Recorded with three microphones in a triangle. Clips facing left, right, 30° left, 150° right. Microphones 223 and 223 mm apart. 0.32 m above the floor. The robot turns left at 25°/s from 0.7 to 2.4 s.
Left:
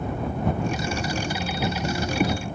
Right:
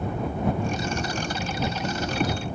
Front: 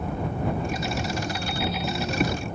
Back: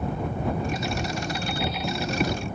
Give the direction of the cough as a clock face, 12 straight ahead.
I don't hear a cough.